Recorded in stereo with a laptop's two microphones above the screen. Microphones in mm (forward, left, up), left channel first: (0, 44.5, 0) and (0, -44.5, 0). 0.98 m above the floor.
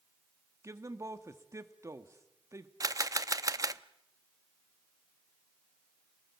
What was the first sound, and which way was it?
A man speaking, 35° right (ahead or behind).